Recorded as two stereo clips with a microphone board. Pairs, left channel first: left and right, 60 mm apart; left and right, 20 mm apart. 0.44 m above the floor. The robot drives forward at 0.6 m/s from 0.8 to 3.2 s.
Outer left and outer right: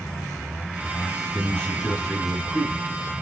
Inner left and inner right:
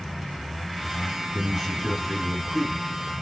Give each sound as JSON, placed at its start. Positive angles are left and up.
{"t": 1.3, "sound": "a man speaking", "side_deg": 15, "distance_m": 5.5}